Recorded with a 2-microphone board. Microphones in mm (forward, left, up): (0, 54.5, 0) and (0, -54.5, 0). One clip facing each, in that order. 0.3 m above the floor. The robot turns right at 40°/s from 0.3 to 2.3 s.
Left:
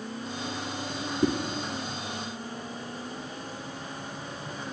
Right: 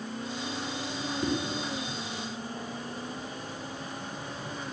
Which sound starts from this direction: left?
A whoosh, at 1.2 s.